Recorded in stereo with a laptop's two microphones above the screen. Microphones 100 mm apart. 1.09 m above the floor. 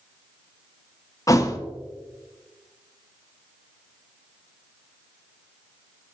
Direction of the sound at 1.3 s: 30° left (ahead or behind).